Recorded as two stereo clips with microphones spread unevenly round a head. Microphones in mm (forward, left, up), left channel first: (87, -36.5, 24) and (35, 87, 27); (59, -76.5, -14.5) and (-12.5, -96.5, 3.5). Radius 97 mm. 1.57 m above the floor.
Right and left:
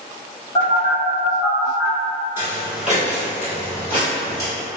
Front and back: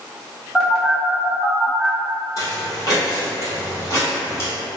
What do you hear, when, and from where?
0.6 s a phone buzzing: 120° right, 1.0 m
2.4 s footsteps: 55° left, 1.7 m; by 4.5 s 30° right, 1.8 m